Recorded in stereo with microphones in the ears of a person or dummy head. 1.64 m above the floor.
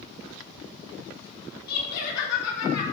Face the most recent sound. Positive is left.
turn(degrees=70)  # may be behind; listen again after turning